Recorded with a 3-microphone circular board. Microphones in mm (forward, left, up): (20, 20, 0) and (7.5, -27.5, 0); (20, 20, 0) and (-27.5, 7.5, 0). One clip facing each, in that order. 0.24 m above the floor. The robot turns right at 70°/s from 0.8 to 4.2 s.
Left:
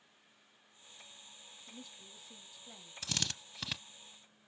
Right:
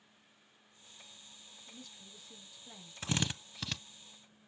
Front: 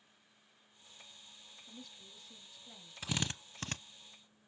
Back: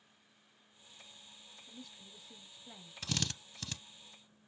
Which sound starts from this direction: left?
A woman speaking, at 1.7 s.